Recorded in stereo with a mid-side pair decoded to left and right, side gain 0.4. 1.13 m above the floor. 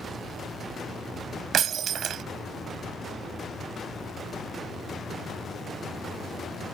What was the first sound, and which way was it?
Breaking glass, 70° right.